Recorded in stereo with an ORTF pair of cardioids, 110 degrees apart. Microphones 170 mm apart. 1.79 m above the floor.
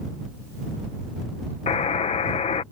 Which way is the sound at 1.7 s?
40° left.